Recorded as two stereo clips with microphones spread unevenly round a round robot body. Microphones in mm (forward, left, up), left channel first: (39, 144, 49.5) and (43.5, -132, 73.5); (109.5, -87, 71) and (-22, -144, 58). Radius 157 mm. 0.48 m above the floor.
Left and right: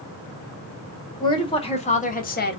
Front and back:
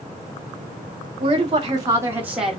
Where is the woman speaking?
160° left, 1.5 m; by 2.6 s 115° left, 1.0 m.